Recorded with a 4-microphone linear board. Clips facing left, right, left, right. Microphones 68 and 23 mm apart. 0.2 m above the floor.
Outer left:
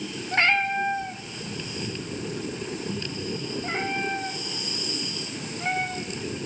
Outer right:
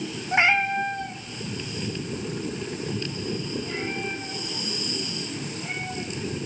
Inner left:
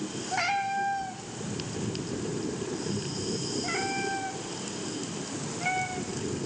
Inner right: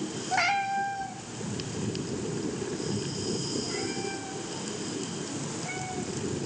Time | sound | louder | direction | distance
0.3 | a cat meowing | outer right 1 dB, inner right 2 dB | 15° right (ahead or behind) | 1.2 m